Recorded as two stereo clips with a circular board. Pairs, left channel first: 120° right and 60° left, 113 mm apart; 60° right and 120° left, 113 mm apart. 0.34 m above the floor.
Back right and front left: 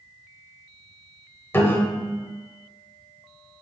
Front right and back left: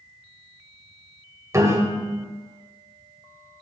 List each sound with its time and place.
1.5 s a piano: 175° left, 0.6 m